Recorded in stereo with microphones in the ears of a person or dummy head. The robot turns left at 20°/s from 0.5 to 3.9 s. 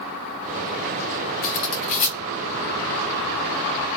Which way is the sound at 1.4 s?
30° left (ahead or behind).